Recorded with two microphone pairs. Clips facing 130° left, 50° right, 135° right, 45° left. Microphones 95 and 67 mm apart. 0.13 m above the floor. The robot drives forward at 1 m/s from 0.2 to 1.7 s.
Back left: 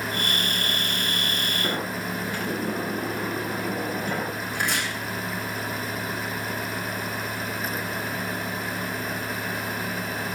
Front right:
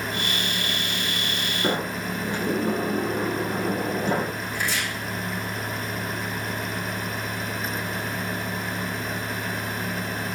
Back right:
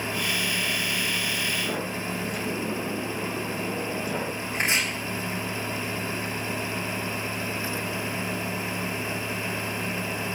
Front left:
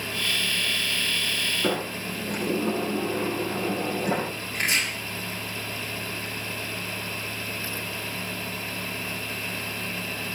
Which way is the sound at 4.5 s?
155° left.